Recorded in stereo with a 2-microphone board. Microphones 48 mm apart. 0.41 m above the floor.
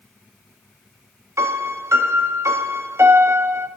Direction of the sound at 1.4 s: 70° right (ahead or behind).